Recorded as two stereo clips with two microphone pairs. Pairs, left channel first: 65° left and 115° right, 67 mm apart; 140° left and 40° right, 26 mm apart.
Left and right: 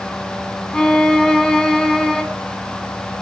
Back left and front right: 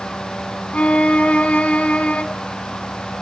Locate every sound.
0.7 s a violin: 145° left, 1.6 m